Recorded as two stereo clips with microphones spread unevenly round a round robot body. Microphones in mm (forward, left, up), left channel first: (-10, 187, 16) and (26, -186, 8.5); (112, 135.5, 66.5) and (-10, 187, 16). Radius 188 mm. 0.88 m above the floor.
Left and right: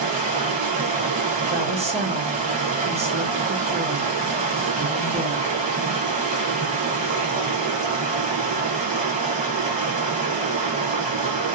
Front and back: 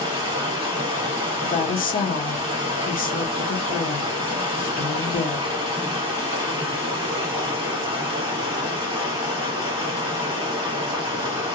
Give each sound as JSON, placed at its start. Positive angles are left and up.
{"t": 0.0, "sound": "running water", "azimuth_deg": -115, "distance_m": 0.7}
{"t": 1.4, "sound": "a woman speaking", "azimuth_deg": -15, "distance_m": 0.8}